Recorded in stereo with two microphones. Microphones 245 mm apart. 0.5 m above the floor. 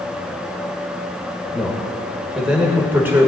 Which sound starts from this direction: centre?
A man speaking, at 1.5 s.